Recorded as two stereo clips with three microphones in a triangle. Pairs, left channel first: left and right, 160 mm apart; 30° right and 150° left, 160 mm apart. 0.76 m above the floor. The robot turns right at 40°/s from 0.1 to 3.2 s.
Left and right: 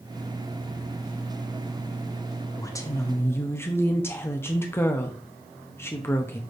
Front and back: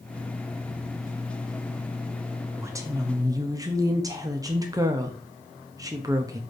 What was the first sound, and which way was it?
A woman speaking, 110° left.